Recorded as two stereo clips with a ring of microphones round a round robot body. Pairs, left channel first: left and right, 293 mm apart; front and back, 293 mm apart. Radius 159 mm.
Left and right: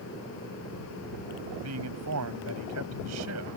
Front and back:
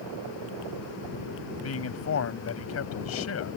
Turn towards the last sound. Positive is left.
turn(degrees=-40)